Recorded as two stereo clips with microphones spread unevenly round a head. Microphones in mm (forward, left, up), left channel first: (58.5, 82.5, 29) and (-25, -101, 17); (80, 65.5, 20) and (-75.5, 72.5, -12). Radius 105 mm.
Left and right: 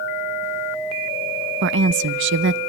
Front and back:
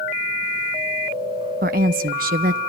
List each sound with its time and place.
1.6 s a woman speaking: 145° right, 0.9 m